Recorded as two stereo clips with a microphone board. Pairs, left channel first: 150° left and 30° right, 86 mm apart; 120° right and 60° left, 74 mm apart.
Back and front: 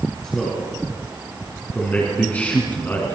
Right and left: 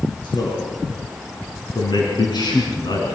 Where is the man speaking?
130° right, 6.5 m; by 3.1 s 145° right, 5 m.